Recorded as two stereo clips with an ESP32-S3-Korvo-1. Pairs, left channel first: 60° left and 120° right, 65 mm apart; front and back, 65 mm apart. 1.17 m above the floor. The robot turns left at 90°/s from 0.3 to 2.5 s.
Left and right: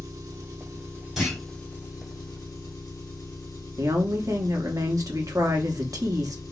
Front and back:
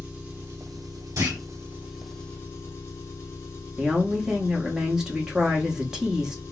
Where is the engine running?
115° right, 1.5 m; by 6.5 s 50° left, 1.5 m.